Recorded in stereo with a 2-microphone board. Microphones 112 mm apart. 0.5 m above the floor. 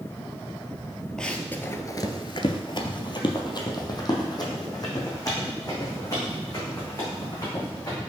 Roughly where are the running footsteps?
Centre.